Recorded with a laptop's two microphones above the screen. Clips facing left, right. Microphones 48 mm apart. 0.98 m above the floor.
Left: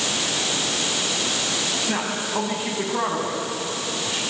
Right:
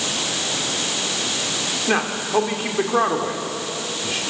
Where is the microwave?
I don't hear a microwave.